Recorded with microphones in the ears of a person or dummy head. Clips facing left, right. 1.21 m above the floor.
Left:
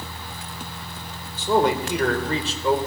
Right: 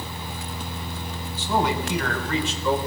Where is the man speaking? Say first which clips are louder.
Left 4 dB; 55° left (ahead or behind), 3.5 m; by 2.8 s 30° left (ahead or behind), 4 m.